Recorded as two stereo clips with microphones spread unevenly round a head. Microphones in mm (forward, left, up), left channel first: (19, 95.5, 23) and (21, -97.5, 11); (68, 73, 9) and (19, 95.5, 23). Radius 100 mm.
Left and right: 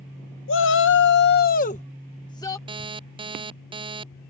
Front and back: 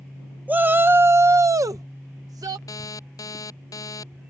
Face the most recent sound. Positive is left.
turn(degrees=-25)